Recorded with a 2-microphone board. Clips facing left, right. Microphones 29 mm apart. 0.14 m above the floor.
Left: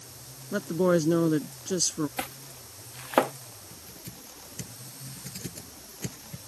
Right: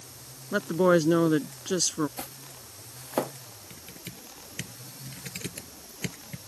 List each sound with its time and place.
0.5 s a woman speaking: 30° right (ahead or behind)
2.2 s chopping: 70° left (ahead or behind)
3.7 s typing on a keyboard: 60° right (ahead or behind)